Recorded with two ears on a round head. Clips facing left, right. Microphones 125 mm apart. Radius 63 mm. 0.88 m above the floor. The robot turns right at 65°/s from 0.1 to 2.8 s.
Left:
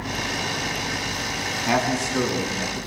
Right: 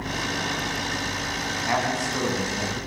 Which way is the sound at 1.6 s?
150° left.